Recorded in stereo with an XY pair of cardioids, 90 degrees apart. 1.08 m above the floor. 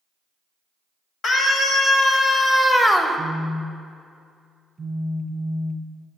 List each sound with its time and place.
1.2 s a scream: 65° left, 1.9 m; by 3.2 s 15° right, 0.8 m
3.2 s a phone buzzing: 30° right, 0.6 m